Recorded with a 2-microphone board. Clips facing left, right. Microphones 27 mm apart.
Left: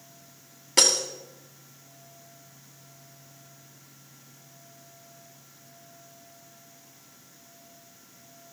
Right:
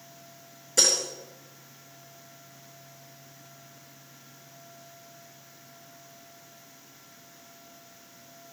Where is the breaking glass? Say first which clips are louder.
Left 2 dB; 60° left (ahead or behind), 2.5 m.